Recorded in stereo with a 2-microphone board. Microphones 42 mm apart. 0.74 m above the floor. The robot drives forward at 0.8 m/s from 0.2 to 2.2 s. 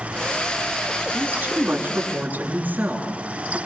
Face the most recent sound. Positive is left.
turn(degrees=-40)  # may be behind; listen again after turning